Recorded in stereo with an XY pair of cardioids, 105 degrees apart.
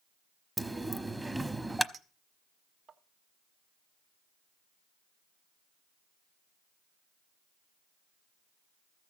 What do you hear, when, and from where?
0.6 s a dropped coin: 15° right, 0.9 m
1.9 s a clink: 55° right, 1.5 m